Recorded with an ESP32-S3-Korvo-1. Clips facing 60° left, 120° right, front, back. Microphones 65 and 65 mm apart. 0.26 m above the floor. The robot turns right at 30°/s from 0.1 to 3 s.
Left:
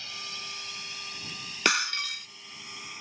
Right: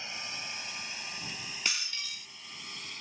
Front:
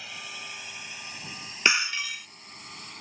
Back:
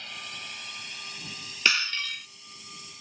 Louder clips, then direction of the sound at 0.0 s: Even, even; 80° right.